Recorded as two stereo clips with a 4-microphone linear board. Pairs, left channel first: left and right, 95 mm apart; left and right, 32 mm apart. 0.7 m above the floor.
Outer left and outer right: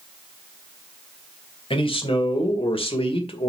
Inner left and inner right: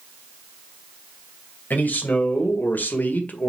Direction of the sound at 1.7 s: 70° left (ahead or behind).